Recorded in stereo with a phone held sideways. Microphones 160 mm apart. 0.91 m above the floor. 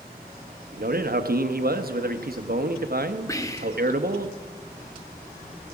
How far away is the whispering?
About 1.0 m.